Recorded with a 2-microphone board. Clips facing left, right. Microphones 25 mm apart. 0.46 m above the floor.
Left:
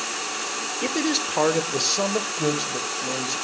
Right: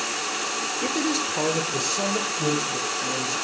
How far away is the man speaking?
About 1.1 m.